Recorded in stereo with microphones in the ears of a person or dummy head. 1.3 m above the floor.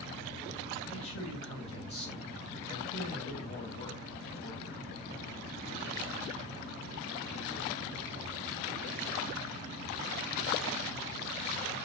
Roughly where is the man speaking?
Left.